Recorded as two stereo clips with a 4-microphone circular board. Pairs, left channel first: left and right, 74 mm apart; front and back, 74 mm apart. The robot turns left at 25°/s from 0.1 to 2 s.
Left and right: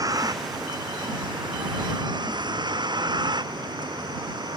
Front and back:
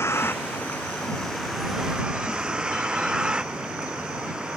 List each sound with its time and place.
0.0 s a vehicle: 55° right; by 4.6 s 100° right